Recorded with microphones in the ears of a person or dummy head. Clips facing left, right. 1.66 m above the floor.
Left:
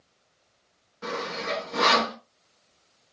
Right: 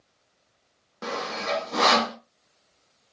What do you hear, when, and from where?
1.0 s sawing: 65° right (ahead or behind), 1.2 m